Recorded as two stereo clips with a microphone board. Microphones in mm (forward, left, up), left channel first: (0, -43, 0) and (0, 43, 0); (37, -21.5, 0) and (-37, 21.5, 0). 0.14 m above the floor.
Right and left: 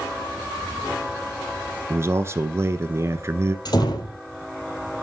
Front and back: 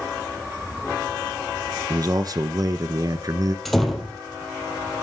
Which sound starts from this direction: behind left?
A man speaking, at 1.9 s.